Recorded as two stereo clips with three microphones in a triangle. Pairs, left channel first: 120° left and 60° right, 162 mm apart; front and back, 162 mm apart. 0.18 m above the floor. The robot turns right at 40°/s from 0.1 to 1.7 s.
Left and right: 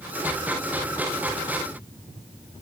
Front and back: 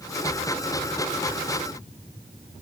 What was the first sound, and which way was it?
Only background noise.